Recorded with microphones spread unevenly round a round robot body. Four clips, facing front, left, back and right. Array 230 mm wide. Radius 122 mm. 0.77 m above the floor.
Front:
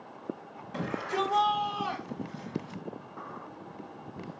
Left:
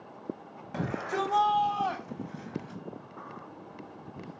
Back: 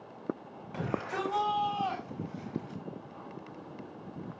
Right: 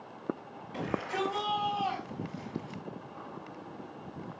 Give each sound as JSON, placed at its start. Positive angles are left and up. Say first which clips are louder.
{"t": 0.7, "sound": "a shout", "louder": "left 2 dB, front 3 dB", "azimuth_deg": 95, "distance_m": 5.5}